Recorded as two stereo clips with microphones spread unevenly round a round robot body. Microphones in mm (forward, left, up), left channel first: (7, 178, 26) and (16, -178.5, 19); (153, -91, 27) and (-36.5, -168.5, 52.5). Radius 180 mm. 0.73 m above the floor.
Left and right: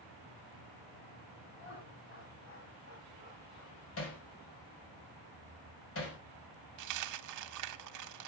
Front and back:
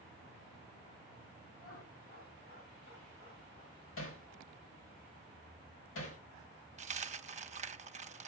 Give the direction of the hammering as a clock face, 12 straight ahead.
11 o'clock.